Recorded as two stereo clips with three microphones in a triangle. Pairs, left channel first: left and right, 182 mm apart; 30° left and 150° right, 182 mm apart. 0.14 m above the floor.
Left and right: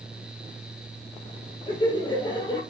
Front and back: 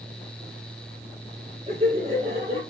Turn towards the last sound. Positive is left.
turn(degrees=155)